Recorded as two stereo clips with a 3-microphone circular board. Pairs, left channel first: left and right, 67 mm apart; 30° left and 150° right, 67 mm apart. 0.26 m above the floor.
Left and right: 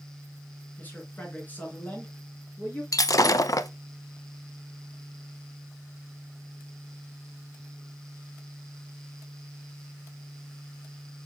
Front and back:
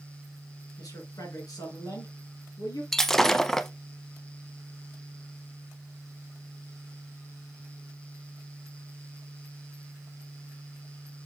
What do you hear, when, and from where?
0.8 s a man speaking: 30° left, 3 m
2.9 s breaking glass: 115° left, 0.5 m